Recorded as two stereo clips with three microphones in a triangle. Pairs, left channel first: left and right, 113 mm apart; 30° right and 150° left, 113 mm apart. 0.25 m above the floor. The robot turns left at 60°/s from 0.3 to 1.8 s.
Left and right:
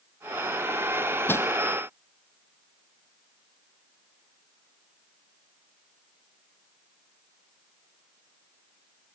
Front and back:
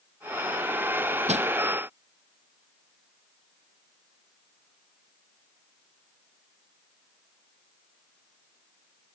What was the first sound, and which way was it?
Crushing, 160° left.